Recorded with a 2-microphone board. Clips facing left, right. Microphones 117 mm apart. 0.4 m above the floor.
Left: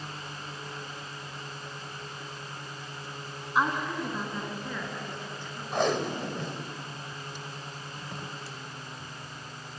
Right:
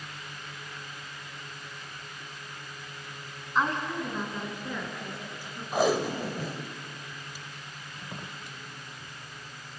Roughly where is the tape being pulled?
Centre.